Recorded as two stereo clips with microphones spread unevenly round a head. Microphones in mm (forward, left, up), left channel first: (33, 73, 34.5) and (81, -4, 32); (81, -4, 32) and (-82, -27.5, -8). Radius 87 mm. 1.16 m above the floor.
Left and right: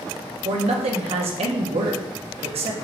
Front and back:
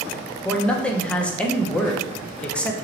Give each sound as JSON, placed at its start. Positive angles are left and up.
{"t": 0.5, "sound": "a man speaking", "azimuth_deg": -75, "distance_m": 0.6}